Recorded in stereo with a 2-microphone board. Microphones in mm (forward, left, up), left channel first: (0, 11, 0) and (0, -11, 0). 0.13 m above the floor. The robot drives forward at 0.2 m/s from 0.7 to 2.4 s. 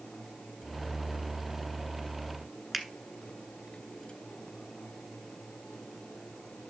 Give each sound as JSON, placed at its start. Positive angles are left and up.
{"t": 2.7, "sound": "a finger snap", "side_deg": -10, "distance_m": 1.2}